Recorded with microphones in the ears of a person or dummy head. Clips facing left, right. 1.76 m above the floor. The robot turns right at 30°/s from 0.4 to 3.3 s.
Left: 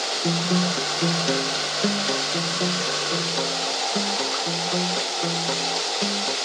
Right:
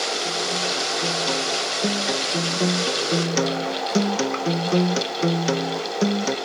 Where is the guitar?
135° left; by 6.4 s 140° right.